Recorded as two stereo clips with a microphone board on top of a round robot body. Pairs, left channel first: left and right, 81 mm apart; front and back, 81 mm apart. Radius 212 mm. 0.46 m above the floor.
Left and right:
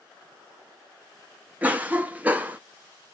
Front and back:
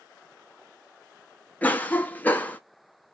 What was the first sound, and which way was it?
A cough, 45° right.